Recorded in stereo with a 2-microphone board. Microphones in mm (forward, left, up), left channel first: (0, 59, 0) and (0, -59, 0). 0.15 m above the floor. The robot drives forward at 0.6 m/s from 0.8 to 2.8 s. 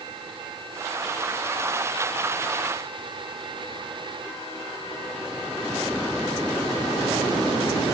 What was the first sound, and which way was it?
Only background noise.